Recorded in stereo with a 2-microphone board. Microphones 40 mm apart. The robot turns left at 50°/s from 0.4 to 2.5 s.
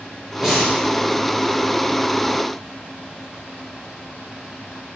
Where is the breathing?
10° right (ahead or behind), 4 m; by 0.8 s 10° left (ahead or behind), 4 m.